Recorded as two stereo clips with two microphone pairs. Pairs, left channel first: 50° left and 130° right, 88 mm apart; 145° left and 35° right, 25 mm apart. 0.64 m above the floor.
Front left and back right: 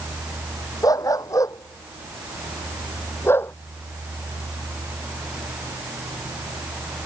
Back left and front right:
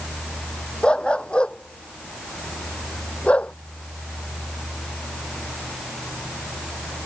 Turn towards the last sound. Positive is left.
turn(degrees=115)